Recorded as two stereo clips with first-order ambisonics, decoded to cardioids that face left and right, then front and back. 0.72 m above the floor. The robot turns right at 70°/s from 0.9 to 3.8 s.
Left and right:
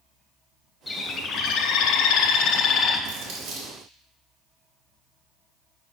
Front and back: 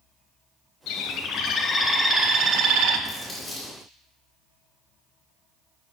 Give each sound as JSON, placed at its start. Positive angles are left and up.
{"t": 0.9, "sound": "a bird", "azimuth_deg": 15, "distance_m": 0.6}
{"t": 3.1, "sound": "crumpling", "azimuth_deg": -105, "distance_m": 2.0}